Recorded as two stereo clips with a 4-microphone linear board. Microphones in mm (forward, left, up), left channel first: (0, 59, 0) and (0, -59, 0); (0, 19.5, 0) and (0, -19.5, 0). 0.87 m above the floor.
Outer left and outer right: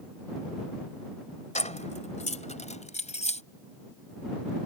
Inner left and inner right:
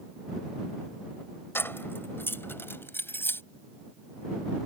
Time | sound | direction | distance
1.6 | keys jangling | 80° left | ?